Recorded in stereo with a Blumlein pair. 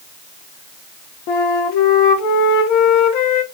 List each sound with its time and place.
1.3 s a flute: 40° left, 0.7 m